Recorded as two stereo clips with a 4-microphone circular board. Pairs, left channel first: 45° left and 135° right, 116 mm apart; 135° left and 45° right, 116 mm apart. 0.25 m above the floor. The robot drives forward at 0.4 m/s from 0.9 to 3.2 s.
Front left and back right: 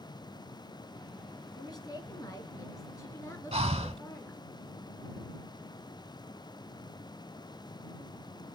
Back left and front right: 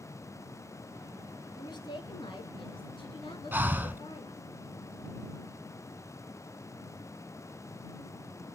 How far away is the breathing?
About 0.6 m.